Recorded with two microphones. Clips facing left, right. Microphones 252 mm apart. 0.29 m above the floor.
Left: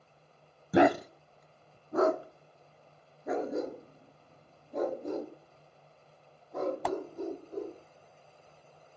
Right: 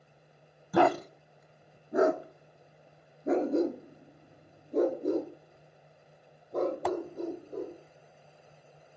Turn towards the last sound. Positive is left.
turn(degrees=-40)  # may be behind; listen again after turning